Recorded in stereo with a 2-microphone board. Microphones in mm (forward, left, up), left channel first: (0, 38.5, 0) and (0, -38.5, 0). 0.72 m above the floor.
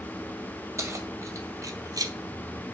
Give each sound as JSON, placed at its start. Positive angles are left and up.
{"t": 0.8, "sound": "keys jangling", "side_deg": -40, "distance_m": 2.0}